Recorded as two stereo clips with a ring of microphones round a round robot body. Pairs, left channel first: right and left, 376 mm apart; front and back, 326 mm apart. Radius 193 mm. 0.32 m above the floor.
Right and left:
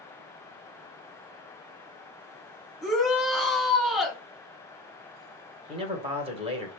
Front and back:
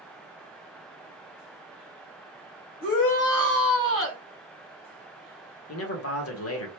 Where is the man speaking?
20° left, 1.1 m.